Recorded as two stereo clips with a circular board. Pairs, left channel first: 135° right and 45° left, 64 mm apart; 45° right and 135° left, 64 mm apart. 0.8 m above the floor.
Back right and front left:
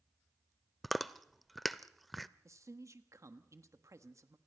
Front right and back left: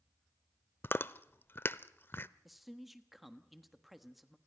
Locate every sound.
0.8 s chewing: 50° right, 0.5 m
2.5 s a man speaking: 45° left, 1.3 m